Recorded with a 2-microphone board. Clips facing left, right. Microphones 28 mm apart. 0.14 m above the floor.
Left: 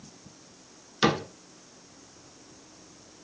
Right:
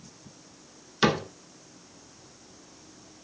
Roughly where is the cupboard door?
Centre.